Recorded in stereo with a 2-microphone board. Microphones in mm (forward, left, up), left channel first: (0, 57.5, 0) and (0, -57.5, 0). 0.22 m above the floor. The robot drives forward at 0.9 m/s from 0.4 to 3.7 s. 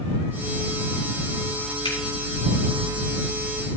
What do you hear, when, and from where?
1.9 s a finger snap: 45° left (ahead or behind), 2.5 m